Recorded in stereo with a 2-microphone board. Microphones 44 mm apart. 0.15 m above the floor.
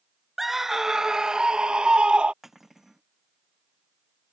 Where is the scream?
5° right (ahead or behind); by 2.3 s 25° right (ahead or behind).